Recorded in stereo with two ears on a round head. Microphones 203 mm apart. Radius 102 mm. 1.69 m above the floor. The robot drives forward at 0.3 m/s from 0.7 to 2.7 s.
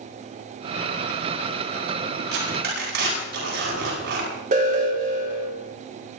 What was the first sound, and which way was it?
Tearing paper, 50° right (ahead or behind).